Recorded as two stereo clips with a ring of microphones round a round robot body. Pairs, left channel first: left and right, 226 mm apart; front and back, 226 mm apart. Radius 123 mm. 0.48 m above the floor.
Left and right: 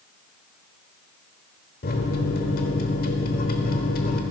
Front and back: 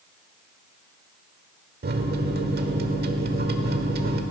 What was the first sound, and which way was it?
A microwave, 140° left.